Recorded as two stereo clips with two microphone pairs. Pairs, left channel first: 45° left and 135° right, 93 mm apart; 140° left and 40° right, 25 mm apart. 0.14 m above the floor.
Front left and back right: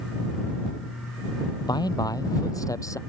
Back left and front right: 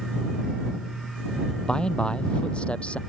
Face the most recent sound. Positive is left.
turn(degrees=100)